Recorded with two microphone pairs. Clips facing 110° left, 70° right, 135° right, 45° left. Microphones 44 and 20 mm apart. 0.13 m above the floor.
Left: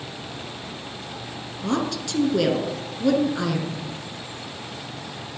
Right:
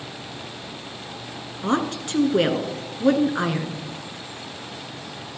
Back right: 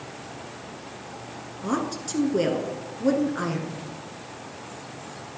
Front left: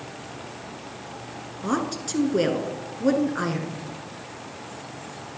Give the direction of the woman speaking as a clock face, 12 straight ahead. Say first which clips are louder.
Right 2 dB, front left 1 dB; 1 o'clock.